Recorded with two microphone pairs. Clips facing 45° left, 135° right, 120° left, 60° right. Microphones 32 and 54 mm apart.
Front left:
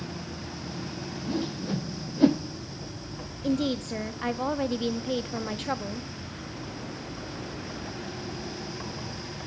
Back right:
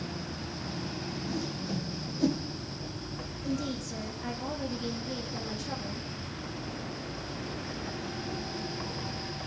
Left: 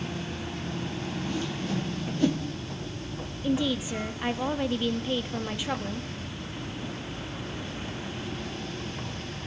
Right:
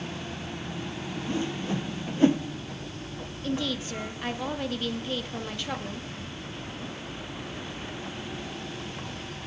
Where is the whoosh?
Straight ahead, 0.7 m.